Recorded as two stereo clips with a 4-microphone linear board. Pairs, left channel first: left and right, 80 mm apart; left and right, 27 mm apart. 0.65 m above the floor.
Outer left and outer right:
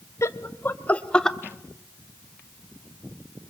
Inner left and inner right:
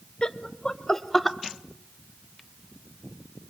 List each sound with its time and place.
0.2 s laughter: 35° left (ahead or behind), 1.1 m; by 1.4 s 5° left (ahead or behind), 1.0 m